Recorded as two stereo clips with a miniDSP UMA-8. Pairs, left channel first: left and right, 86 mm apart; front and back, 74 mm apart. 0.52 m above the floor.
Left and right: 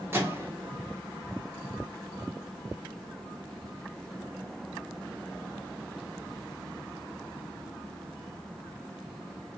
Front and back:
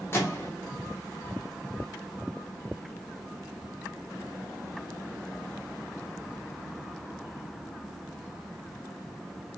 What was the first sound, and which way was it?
A microwave, 40° right.